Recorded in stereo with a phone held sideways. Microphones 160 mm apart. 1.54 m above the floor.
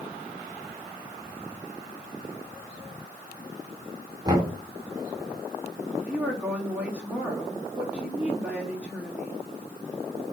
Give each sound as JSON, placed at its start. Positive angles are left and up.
{"t": 4.2, "sound": "knocking", "side_deg": -25, "distance_m": 3.0}
{"t": 6.0, "sound": "a woman speaking", "side_deg": -10, "distance_m": 3.0}